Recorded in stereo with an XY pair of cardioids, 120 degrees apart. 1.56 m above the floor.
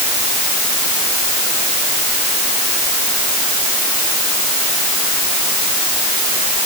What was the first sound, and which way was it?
Only background noise.